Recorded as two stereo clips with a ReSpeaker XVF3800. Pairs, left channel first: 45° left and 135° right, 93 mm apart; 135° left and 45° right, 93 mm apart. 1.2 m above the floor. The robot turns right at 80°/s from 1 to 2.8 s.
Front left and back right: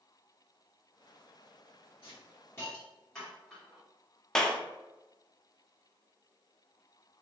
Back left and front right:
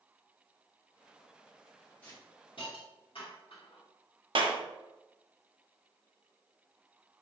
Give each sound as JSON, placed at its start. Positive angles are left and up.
{"t": 2.0, "sound": "a hiss", "azimuth_deg": 65, "distance_m": 1.6}
{"t": 4.3, "sound": "a clap", "azimuth_deg": -40, "distance_m": 0.6}